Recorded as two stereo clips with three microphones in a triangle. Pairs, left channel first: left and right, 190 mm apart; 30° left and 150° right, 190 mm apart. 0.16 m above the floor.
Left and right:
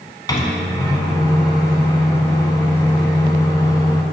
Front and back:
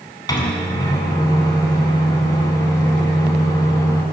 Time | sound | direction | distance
0.3 | a microwave | 60° left | 0.8 m